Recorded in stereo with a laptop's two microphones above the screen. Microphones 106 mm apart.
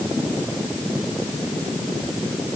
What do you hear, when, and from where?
Only background noise.